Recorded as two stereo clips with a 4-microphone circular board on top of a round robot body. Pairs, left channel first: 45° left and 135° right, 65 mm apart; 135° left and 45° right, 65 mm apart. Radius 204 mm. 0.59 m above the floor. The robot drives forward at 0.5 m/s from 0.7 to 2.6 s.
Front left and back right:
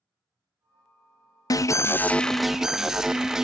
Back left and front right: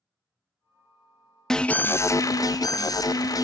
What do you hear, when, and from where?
1.5 s an alarm: 55° left, 0.5 m; by 3.5 s 140° left, 0.6 m